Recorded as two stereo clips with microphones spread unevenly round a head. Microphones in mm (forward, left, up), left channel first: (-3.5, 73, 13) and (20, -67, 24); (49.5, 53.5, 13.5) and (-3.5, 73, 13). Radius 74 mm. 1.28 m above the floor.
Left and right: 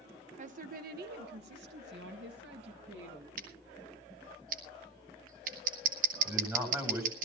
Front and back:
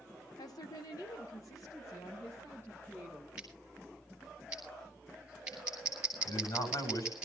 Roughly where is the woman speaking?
Ahead right.